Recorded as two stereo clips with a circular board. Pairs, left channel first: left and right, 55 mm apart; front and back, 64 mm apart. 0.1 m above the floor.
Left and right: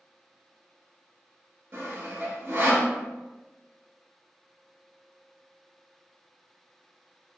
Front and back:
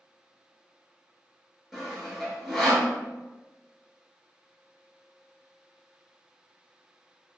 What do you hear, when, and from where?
1.7 s sawing: 95° right, 1.1 m